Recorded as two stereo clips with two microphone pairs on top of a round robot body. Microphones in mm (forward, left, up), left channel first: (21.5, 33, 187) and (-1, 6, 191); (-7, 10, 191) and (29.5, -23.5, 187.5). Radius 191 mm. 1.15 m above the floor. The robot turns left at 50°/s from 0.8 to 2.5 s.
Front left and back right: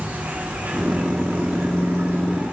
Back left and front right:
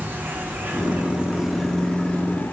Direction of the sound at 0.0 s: 90° right.